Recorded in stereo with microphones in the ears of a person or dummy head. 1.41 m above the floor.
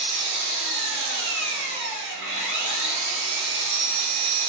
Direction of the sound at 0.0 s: 60° right (ahead or behind).